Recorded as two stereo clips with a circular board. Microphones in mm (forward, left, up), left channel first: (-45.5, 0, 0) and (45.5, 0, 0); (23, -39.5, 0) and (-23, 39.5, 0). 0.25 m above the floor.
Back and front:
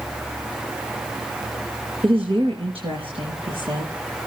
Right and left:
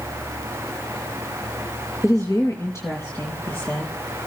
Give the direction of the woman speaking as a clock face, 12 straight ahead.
12 o'clock.